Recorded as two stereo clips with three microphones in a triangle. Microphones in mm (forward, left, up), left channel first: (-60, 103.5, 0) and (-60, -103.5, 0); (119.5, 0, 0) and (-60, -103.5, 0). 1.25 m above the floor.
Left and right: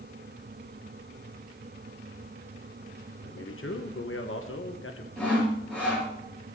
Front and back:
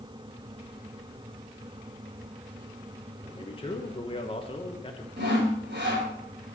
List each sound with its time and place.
3.2 s a man speaking: 90° left, 1.2 m
5.2 s sawing: 175° left, 5.5 m